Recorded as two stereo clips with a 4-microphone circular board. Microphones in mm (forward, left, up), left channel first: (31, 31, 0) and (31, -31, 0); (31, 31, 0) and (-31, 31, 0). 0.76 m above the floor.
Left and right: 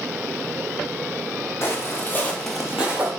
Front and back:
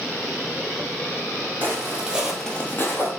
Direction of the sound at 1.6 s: 130° left.